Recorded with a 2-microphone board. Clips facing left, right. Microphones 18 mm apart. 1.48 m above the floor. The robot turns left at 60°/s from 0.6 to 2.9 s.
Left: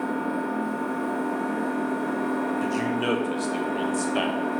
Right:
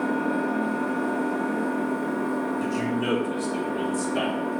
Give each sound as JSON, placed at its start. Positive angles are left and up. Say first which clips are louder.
{"t": 0.0, "sound": "an engine running", "louder": "right 2 dB", "azimuth_deg": -130, "distance_m": 0.9}
{"t": 2.6, "sound": "a man speaking", "louder": "left 1 dB", "side_deg": 10, "distance_m": 0.8}